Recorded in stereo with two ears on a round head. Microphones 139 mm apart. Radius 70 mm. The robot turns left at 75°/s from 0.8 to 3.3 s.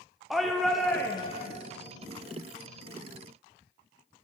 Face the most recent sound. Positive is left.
turn(degrees=-5)